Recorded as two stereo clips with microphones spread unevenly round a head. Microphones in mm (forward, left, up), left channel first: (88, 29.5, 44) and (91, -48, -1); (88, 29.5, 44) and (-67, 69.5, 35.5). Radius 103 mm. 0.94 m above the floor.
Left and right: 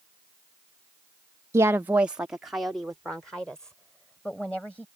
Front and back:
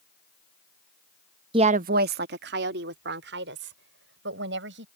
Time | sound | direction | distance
1.5 | a woman speaking | 130° right | ?